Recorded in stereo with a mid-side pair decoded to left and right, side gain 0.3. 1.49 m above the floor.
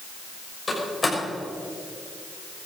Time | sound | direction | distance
0.7 | a door slam | 40° left | 6.5 m